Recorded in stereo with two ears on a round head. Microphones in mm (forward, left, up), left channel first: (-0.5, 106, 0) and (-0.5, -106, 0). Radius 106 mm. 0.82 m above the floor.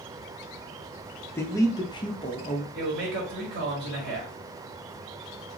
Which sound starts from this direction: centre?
A man speaking, at 1.4 s.